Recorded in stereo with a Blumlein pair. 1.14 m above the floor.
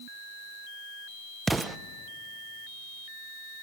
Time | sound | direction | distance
1.5 | an explosion | 10° right | 0.5 m